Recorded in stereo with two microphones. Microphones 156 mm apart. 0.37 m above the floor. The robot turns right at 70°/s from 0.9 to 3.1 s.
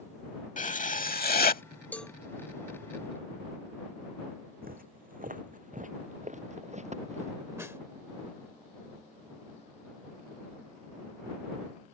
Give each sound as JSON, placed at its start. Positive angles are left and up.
{"t": 0.6, "sound": "writing", "azimuth_deg": 60}
{"t": 1.9, "sound": "a cowbell", "side_deg": 10}
{"t": 4.6, "sound": "footsteps", "side_deg": -70}
{"t": 7.6, "sound": "a snare drum", "side_deg": -15}